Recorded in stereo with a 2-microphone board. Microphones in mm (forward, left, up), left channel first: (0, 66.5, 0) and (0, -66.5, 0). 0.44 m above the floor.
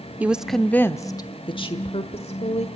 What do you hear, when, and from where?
0.2 s a woman speaking: 10° right (ahead or behind), 0.7 m; by 2.7 s 60° left (ahead or behind), 1.5 m